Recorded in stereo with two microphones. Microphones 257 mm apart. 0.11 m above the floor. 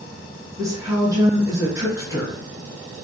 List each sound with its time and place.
0.6 s a woman speaking: 15° right (ahead or behind), 1.2 m